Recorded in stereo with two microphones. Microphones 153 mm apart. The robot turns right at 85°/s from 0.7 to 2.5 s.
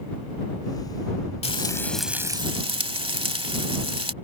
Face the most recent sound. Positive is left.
turn(degrees=-140)